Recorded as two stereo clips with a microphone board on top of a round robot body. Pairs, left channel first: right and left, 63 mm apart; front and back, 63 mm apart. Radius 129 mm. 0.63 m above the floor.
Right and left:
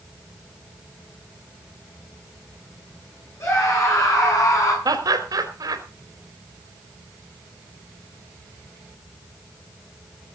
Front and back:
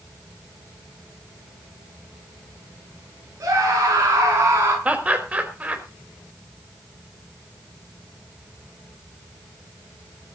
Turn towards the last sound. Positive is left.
turn(degrees=110)